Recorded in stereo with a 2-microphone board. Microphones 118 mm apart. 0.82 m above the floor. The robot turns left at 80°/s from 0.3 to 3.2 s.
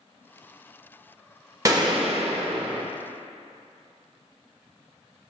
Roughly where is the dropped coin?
No dropped coin in this recording.